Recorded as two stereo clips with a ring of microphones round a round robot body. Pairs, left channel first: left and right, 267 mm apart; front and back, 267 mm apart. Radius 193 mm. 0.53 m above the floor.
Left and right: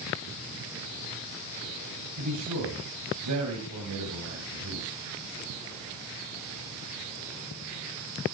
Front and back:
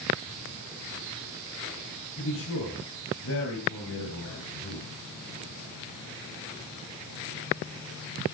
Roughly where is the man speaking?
Ahead right.